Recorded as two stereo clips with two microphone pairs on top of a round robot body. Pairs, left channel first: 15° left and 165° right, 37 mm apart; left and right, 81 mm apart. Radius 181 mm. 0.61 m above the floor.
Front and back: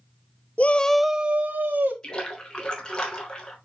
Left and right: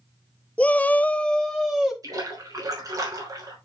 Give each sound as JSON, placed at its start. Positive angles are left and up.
{"t": 0.6, "sound": "a shout", "azimuth_deg": 35, "distance_m": 0.9}
{"t": 2.0, "sound": "a splash", "azimuth_deg": -50, "distance_m": 3.5}